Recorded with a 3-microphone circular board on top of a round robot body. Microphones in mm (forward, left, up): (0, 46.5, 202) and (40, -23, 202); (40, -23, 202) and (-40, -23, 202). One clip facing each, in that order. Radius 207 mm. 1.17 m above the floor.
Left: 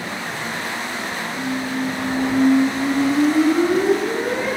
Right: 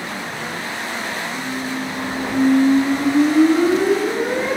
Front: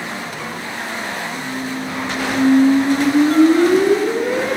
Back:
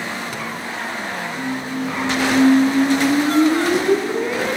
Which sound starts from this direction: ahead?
A squeak, at 1.3 s.